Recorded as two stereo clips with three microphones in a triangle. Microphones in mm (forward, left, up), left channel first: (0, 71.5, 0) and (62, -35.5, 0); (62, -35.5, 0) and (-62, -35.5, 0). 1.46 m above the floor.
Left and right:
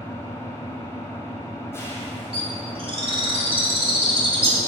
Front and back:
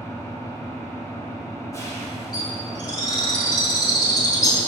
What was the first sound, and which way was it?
An engine running, 55° left.